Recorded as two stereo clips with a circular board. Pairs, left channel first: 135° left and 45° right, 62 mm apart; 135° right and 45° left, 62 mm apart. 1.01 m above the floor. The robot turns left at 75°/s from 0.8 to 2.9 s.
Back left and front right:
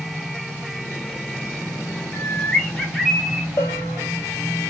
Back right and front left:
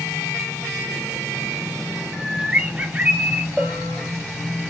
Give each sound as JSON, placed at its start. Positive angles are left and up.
{"t": 2.1, "sound": "a bird", "azimuth_deg": 110, "distance_m": 0.7}
{"t": 3.6, "sound": "a bell", "azimuth_deg": 125, "distance_m": 1.0}